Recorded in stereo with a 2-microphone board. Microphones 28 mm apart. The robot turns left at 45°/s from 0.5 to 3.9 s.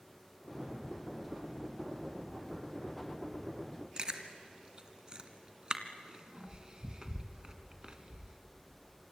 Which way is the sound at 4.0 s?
30° right (ahead or behind).